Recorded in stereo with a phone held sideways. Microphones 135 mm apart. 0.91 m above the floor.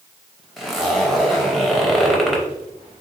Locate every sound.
0.6 s a zipper: centre (ahead or behind), 0.7 m